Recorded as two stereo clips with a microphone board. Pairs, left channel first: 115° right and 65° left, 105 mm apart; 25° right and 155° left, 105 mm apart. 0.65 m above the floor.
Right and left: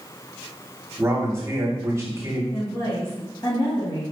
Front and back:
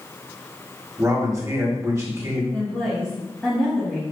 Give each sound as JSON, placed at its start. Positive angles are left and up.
{"t": 1.0, "sound": "a man speaking", "azimuth_deg": 115, "distance_m": 1.2}
{"t": 2.5, "sound": "a woman speaking", "azimuth_deg": -105, "distance_m": 1.3}